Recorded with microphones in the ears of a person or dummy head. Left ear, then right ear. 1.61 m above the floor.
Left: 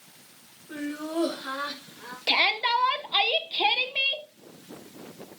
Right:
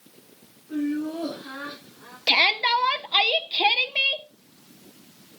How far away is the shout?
About 1.1 m.